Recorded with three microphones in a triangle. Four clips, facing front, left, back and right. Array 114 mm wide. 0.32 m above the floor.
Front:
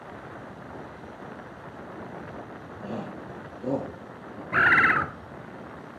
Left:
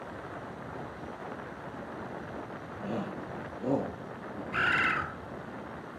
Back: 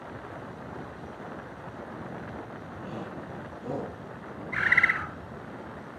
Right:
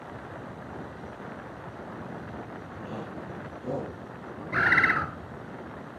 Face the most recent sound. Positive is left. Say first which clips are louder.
# right 5 dB, front 6 dB
turn(degrees=-20)